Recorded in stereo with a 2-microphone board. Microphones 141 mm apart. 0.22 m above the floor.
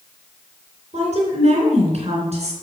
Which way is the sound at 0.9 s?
50° right (ahead or behind).